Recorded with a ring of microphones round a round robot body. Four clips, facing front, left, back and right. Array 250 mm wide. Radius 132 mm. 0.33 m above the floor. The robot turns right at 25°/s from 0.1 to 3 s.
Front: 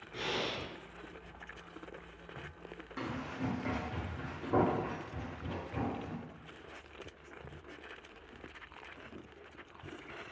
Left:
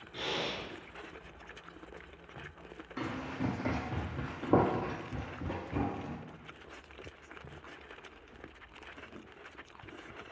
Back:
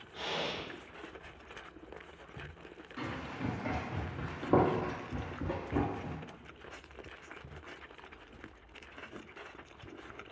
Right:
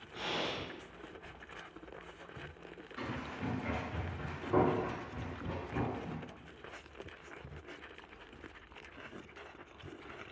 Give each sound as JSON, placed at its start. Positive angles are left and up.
{"t": 0.1, "sound": "breathing", "azimuth_deg": 35, "distance_m": 1.0}
{"t": 3.0, "sound": "running footsteps", "azimuth_deg": 70, "distance_m": 1.1}